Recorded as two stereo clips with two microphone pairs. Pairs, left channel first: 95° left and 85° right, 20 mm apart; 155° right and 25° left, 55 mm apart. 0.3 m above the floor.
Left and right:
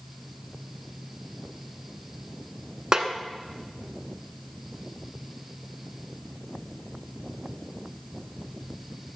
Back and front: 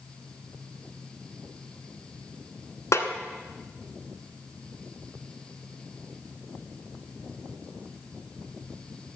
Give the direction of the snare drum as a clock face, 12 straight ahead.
5 o'clock.